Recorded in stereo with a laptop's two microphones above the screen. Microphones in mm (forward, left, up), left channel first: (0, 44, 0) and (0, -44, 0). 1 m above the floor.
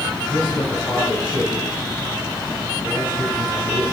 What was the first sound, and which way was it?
A man speaking, 65° left (ahead or behind).